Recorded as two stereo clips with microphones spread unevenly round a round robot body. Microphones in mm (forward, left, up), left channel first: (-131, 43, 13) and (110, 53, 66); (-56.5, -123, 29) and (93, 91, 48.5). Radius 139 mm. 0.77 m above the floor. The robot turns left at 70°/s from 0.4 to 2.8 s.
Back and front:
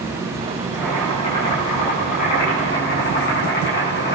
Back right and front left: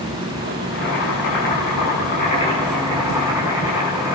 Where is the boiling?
70° right, 8 m; by 4.1 s 140° left, 8 m.